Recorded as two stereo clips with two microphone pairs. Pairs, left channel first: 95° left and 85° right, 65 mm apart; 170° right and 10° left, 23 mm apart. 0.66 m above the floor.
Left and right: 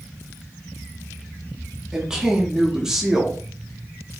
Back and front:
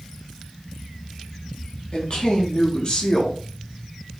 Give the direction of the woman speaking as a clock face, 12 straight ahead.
5 o'clock.